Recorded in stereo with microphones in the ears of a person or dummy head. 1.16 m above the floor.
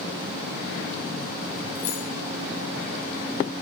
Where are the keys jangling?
45° left (ahead or behind), 2 m.